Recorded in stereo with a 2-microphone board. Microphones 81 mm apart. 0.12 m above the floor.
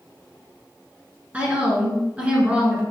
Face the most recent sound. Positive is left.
turn(degrees=-20)  # may be behind; listen again after turning